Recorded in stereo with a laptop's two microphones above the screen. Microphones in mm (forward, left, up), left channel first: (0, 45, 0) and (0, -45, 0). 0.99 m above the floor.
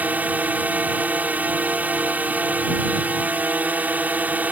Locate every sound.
0.0 s a drone: 20° right (ahead or behind)